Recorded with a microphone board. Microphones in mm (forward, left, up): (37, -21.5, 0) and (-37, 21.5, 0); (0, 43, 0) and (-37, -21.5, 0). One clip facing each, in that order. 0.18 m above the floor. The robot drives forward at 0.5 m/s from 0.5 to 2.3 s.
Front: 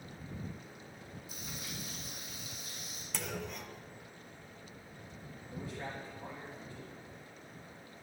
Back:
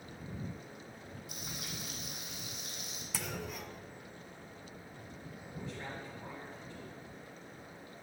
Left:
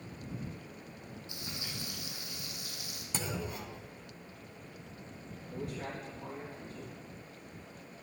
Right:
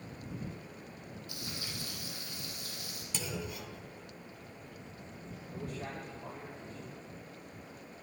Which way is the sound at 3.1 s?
65° left.